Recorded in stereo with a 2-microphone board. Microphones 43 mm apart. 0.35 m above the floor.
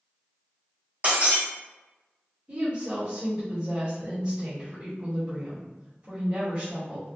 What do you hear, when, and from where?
1.0 s breaking glass: 35° right (ahead or behind), 1.4 m
2.5 s a woman speaking: 30° right (ahead or behind), 1.3 m